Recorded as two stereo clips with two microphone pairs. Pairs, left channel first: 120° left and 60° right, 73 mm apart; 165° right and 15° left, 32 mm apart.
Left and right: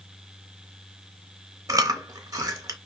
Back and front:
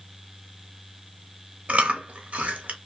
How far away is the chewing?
About 0.6 m.